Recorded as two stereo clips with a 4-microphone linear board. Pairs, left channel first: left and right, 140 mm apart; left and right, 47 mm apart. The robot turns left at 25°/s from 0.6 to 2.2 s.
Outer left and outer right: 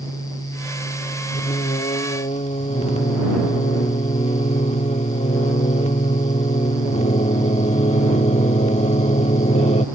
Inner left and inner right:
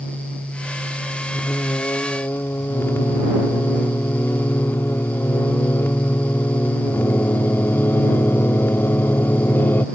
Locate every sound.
1.3 s singing: 55° left (ahead or behind)